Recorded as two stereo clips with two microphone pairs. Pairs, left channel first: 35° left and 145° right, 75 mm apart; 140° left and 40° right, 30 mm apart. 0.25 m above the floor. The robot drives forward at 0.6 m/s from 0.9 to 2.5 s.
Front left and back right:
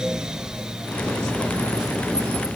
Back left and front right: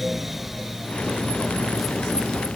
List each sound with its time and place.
Only background noise.